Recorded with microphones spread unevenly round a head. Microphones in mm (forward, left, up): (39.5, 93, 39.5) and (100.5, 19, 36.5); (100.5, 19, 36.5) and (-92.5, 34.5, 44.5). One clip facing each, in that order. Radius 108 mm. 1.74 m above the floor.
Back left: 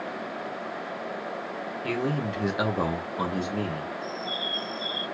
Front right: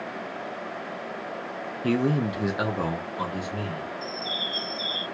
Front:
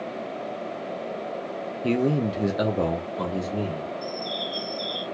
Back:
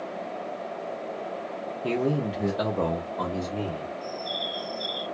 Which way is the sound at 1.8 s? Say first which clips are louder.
Front right 5 dB, front 3 dB; 60° right.